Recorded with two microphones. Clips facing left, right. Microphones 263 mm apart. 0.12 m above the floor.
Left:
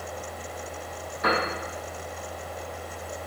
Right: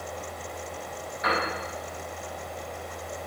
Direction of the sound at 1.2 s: 50° left (ahead or behind).